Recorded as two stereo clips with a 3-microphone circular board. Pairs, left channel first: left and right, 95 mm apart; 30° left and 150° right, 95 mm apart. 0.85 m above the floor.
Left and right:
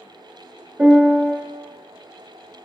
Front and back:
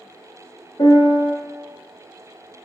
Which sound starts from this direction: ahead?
A piano, at 0.8 s.